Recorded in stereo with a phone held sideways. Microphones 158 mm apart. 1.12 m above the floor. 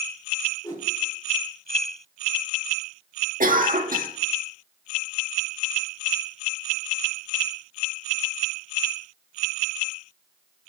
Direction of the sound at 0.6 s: 25° left (ahead or behind).